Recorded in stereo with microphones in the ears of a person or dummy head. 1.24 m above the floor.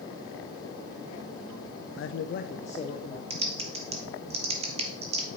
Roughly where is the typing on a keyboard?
Right.